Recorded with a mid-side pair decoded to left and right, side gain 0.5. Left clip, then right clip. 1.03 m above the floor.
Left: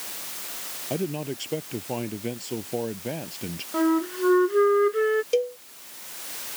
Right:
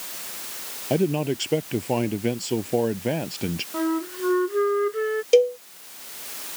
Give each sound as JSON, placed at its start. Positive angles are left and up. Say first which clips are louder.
{"t": 0.9, "sound": "a man speaking", "louder": "right 7 dB", "azimuth_deg": -40}
{"t": 3.7, "sound": "a flute", "louder": "left 4 dB", "azimuth_deg": 20}
{"t": 5.3, "sound": "a cowbell", "louder": "right 7 dB", "azimuth_deg": -40}